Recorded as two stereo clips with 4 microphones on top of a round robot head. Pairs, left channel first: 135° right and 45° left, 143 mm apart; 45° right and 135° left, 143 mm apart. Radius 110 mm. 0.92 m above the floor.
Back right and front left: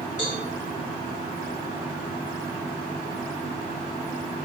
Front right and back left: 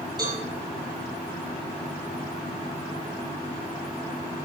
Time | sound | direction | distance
0.2 | a cowbell | 165° right | 2.5 m